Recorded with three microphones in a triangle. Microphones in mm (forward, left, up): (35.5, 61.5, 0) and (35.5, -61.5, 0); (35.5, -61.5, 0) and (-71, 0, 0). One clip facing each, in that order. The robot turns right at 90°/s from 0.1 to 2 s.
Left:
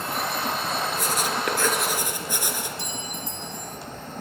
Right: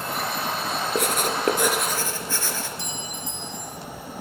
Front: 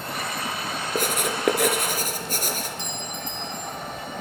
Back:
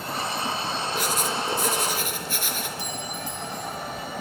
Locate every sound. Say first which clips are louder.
0.9 s writing: right 2 dB, front 4 dB; 80° right, 3 m; by 2.7 s 15° left, 3 m
2.8 s a clink: even, back 1 dB; 70° left, 1.1 m